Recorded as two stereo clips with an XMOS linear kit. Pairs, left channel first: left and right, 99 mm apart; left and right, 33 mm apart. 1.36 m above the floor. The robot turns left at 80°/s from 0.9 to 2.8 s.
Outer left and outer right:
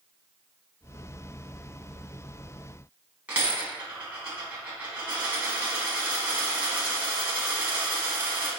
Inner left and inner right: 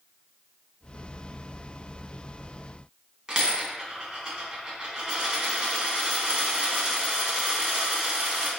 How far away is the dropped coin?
About 1.3 m.